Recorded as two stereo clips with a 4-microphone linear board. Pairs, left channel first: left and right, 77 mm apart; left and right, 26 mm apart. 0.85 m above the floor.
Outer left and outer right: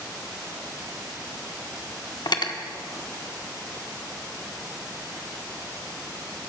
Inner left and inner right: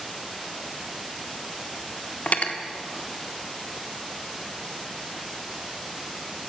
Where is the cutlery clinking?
70° left (ahead or behind), 0.8 m.